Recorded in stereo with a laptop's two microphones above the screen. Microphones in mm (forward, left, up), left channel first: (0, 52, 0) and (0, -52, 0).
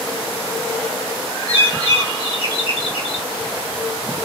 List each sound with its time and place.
1.5 s a bird: 65° left (ahead or behind), 2.5 m